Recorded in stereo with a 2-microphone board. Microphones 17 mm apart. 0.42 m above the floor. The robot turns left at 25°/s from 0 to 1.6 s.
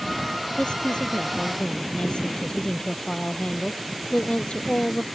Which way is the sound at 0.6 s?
75° left (ahead or behind).